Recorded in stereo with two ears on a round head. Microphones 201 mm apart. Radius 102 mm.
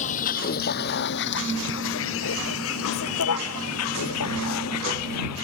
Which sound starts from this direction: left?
A vehicle, at 0.0 s.